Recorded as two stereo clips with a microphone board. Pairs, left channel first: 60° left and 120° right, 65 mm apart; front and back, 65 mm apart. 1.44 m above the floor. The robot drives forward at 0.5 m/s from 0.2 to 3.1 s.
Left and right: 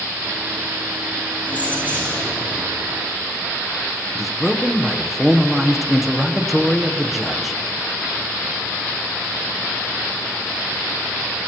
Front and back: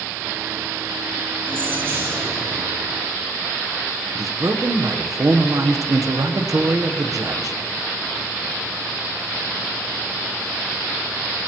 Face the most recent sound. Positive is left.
turn(degrees=150)